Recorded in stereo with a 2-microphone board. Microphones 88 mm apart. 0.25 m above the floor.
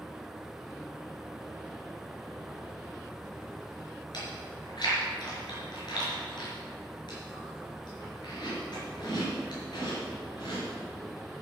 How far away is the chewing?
About 4.5 m.